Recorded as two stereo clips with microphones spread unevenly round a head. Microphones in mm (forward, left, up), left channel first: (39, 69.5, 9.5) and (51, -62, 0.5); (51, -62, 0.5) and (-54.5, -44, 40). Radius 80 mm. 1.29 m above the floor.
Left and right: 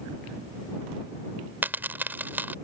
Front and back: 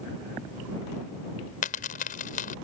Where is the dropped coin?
10° right.